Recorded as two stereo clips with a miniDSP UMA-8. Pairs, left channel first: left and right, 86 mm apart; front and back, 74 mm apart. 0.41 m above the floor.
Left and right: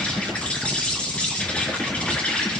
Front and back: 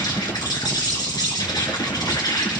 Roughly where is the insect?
Ahead.